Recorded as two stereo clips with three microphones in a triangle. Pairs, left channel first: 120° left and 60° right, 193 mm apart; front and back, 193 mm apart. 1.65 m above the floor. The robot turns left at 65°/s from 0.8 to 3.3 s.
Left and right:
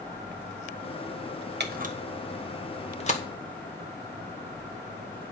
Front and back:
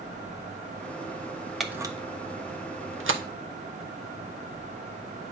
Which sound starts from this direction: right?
A camera shutter, at 1.6 s.